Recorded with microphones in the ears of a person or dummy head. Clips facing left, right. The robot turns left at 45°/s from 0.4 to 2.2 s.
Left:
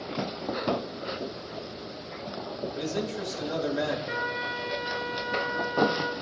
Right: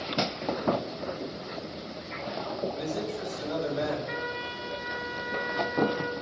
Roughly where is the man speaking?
Left.